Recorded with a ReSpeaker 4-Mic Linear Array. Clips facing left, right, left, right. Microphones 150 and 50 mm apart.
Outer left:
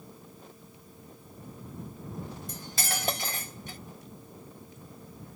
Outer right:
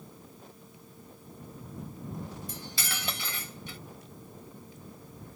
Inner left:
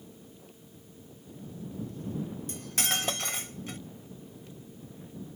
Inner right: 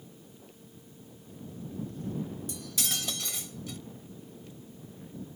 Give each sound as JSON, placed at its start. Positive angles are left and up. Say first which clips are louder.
{"t": 2.5, "sound": "cutlery clinking", "louder": "outer left 3 dB, inner left 4 dB", "side_deg": 45}